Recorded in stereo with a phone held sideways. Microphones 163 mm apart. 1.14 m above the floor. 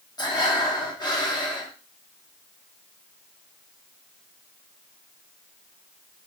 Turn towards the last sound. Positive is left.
turn(degrees=25)  # may be behind; listen again after turning